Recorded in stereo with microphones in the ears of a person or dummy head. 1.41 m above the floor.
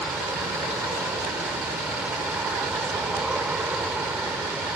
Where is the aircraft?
5° right (ahead or behind).